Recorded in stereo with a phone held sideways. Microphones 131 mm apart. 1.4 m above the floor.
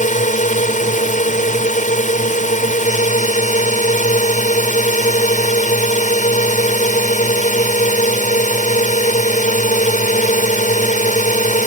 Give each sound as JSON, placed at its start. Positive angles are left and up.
{"t": 0.0, "sound": "a drone", "side_deg": 75}